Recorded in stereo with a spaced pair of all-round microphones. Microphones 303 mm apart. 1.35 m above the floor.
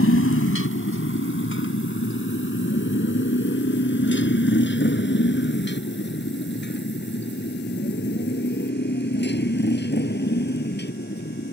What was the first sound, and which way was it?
A motorcycle, 45° left (ahead or behind).